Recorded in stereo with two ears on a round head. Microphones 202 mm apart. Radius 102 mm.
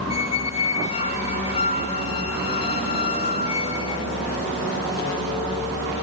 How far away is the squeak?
About 0.8 m.